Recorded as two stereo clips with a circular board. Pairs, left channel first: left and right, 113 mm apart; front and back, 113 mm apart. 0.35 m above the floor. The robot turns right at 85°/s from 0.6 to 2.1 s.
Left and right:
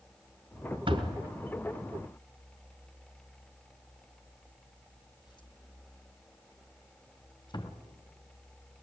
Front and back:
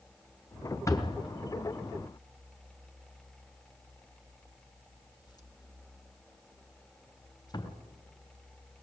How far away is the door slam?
About 3 m.